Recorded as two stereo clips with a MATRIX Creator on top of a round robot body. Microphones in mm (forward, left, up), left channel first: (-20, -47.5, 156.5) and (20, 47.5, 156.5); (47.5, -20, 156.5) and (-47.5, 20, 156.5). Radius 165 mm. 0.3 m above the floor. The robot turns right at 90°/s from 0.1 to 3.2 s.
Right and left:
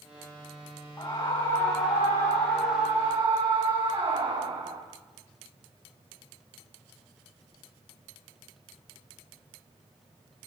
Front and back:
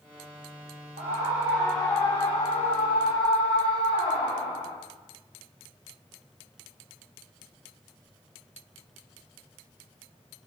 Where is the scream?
175° right, 4 m; by 4.8 s 25° left, 4 m.